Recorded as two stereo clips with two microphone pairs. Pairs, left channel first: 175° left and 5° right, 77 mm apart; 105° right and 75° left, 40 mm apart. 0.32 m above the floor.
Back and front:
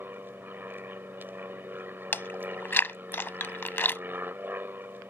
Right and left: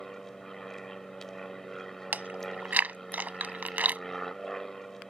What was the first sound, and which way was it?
An aircraft, 35° right.